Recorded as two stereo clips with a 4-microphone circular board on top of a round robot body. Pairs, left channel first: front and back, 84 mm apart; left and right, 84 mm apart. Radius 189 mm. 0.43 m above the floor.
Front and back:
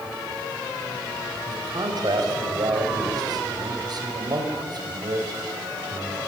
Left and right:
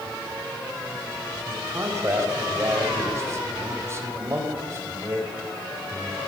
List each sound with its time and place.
1.5 s a man speaking: 145° right, 3.5 m